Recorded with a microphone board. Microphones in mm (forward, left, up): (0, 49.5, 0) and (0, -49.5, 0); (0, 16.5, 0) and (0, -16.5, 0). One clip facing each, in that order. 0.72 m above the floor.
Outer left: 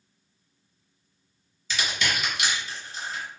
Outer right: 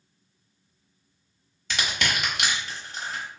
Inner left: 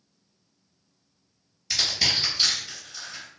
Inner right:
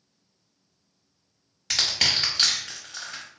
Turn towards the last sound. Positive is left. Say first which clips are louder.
# outer right 1 dB, inner right 1 dB
turn(degrees=-65)  # may be behind; listen again after turning